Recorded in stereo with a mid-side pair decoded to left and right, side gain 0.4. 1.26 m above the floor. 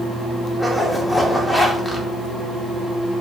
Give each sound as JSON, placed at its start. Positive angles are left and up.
{"t": 0.6, "sound": "a zipper", "azimuth_deg": 10, "distance_m": 0.9}